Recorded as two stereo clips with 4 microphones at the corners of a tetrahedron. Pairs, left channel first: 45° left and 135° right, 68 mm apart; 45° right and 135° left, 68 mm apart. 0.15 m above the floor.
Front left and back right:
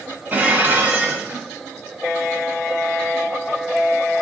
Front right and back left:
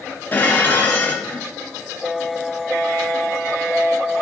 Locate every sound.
0.3 s dishes clattering: 90° right, 1.2 m